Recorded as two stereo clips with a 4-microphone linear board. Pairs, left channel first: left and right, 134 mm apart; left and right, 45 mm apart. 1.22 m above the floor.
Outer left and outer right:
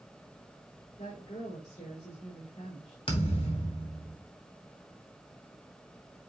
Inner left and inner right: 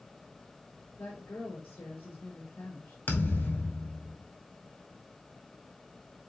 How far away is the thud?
About 2 m.